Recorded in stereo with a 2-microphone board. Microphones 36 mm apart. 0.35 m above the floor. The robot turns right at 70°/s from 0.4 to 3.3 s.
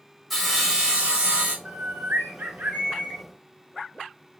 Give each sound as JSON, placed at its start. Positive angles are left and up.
{"t": 0.3, "sound": "sawing", "azimuth_deg": 180, "distance_m": 1.1}
{"t": 1.6, "sound": "a bird", "azimuth_deg": -120, "distance_m": 1.1}